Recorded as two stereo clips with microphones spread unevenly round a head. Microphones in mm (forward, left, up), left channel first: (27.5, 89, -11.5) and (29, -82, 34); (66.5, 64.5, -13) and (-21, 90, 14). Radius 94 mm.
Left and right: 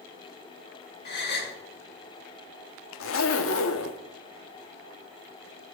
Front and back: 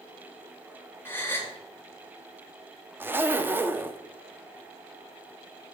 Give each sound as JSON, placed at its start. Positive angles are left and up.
{"t": 1.1, "sound": "a gasp", "azimuth_deg": 55, "distance_m": 1.8}
{"t": 3.0, "sound": "a zipper", "azimuth_deg": 110, "distance_m": 0.7}